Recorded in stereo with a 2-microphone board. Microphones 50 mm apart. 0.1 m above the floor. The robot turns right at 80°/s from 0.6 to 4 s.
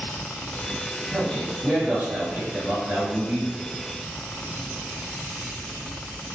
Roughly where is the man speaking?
Centre.